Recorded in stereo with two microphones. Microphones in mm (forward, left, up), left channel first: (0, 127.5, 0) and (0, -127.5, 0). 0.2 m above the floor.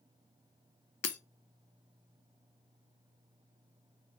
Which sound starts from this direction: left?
Breaking glass, at 1.0 s.